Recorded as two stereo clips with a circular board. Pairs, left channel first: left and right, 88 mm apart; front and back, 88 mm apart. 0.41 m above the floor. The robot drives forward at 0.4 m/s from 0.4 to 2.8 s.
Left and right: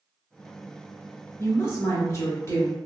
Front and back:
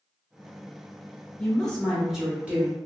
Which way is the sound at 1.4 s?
65° left.